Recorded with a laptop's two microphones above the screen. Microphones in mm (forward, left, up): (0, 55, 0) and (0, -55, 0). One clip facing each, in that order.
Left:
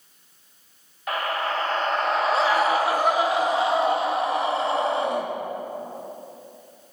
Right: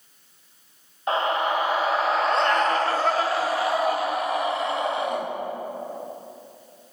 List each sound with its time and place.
1.1 s a scream: 25° right (ahead or behind), 1.1 m; by 5.2 s 35° left (ahead or behind), 2.5 m